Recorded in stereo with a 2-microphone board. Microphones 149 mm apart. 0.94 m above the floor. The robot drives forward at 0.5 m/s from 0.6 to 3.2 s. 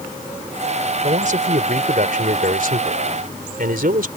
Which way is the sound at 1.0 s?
60° right (ahead or behind).